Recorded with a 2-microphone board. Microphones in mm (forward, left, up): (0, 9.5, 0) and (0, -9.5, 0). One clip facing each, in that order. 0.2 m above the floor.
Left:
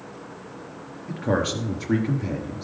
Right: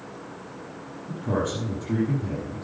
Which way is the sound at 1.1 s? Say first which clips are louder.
Left 3 dB; 65° left (ahead or behind).